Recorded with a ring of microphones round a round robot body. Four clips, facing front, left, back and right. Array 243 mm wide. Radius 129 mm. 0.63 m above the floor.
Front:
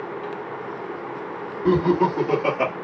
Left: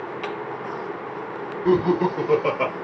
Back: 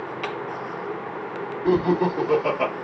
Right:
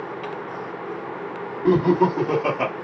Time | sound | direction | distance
1.6 | laughter | 55° right | 1.8 m